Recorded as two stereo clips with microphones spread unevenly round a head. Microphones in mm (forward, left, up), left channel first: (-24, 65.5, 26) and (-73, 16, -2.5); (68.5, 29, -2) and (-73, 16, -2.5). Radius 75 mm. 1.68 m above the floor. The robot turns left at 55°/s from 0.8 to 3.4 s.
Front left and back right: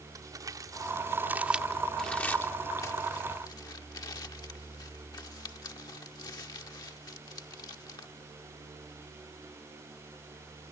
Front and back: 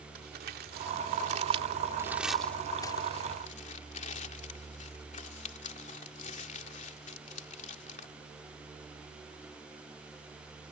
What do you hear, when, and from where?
0.1 s crumpling: straight behind; by 8.1 s 40° left